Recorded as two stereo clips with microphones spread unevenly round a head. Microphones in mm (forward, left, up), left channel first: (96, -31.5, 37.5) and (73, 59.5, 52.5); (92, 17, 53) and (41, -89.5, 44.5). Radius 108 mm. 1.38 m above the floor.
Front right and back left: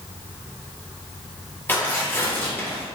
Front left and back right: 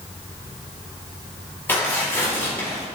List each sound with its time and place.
1.7 s tearing paper: 5° right, 4 m